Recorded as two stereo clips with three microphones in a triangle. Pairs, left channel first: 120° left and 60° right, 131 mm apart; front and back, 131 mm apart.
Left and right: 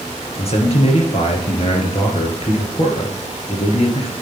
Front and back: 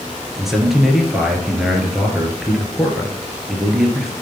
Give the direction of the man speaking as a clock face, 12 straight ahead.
9 o'clock.